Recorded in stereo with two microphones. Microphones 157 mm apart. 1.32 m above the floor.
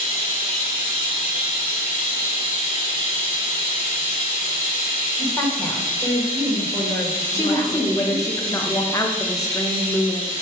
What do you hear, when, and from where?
0.0 s running water: 60° left (ahead or behind), 2.5 m
5.2 s a woman speaking: 20° left (ahead or behind), 1.7 m
7.3 s a woman speaking: 20° left (ahead or behind), 0.8 m